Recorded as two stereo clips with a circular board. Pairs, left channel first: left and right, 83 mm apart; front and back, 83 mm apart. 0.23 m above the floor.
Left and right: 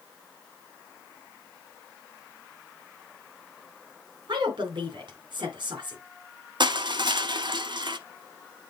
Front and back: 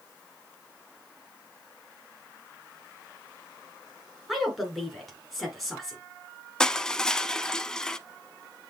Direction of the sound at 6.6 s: 80° right.